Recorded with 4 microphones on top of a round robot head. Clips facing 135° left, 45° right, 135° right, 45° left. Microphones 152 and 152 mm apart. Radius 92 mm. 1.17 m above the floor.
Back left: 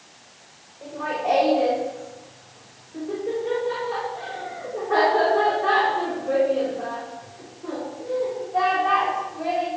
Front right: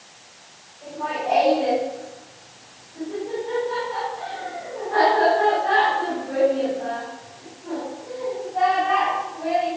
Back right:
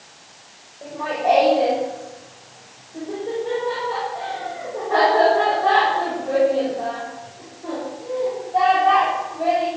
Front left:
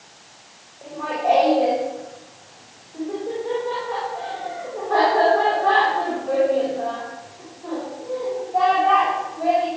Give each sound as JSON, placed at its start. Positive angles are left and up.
{"t": 0.8, "sound": "laughter", "azimuth_deg": 145, "distance_m": 6.5}